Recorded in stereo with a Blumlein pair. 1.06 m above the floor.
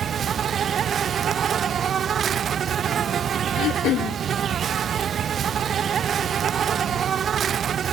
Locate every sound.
0.0 s an insect: 25° right
3.6 s throat clearing: 35° left